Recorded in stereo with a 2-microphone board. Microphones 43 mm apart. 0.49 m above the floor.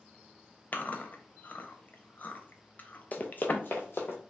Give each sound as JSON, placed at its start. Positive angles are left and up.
{"t": 0.7, "sound": "chewing", "side_deg": 45, "distance_m": 0.5}
{"t": 3.1, "sound": "running footsteps", "side_deg": 40, "distance_m": 0.5}